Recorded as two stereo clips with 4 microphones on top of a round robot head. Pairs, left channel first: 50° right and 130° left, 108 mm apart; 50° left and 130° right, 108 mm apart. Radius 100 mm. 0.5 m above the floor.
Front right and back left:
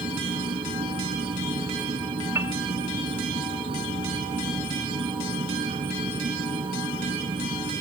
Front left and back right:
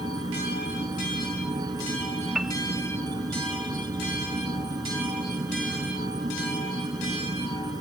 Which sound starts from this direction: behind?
An insect, at 0.0 s.